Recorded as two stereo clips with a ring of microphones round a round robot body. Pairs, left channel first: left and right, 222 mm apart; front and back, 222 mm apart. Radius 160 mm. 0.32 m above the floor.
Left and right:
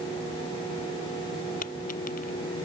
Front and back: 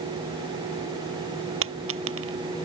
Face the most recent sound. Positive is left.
turn(degrees=155)